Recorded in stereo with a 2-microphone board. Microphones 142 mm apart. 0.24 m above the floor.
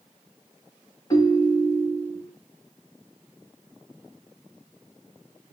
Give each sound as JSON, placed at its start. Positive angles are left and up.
{"t": 1.1, "sound": "a ringtone", "side_deg": 30, "distance_m": 0.9}